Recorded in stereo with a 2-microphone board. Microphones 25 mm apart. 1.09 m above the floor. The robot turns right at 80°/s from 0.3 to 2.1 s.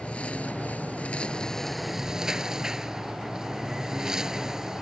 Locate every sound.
0.0 s a lawn mower: 60° left; by 4.8 s 160° right